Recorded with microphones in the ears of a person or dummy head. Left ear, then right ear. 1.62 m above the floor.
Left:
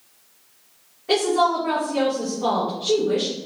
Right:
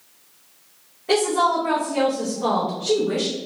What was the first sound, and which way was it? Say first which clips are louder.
A woman speaking: even; 5° right (ahead or behind).